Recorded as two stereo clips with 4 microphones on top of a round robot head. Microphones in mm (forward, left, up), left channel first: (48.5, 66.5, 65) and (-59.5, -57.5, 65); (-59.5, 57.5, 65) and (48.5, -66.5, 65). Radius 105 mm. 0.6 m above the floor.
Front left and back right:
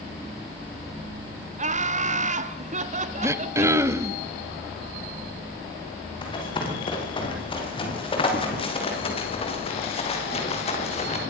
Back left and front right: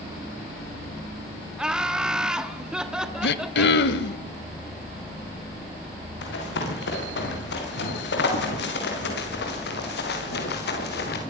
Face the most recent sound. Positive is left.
turn(degrees=100)